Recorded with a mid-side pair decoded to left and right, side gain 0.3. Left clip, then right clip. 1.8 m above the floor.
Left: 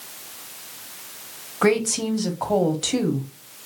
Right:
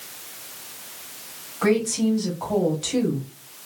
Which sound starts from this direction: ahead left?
A woman speaking, at 1.6 s.